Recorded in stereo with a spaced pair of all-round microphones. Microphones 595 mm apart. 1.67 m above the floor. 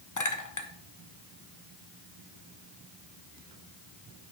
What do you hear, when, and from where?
0.2 s a clink: 30° left (ahead or behind), 0.8 m